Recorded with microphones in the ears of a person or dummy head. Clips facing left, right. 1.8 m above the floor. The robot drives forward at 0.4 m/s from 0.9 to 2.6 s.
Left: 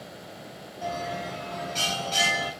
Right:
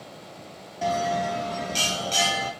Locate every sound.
0.8 s a bell: 70° right (ahead or behind), 0.7 m; by 2.5 s 35° right (ahead or behind), 1.0 m